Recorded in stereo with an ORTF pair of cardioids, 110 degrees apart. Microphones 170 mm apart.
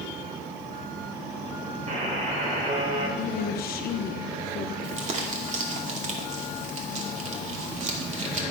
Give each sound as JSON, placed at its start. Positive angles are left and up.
{"t": 1.9, "sound": "a buzzer", "azimuth_deg": -45, "distance_m": 4.0}
{"t": 3.2, "sound": "a woman speaking", "azimuth_deg": 65, "distance_m": 0.9}
{"t": 4.8, "sound": "crumpling", "azimuth_deg": -45, "distance_m": 2.5}